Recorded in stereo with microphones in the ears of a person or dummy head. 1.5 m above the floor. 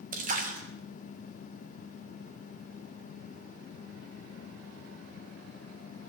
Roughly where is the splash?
Right.